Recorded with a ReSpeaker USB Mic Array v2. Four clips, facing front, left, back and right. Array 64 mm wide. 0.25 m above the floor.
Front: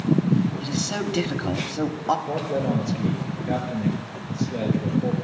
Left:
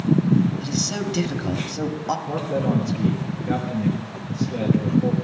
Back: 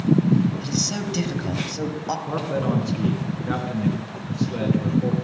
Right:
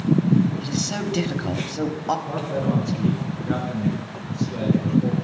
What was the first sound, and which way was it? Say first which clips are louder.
A man speaking: even, even; 25° right.